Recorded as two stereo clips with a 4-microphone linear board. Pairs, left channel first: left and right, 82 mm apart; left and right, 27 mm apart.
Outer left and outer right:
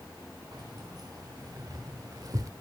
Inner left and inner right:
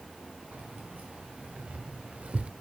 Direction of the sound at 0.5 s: 55° right (ahead or behind).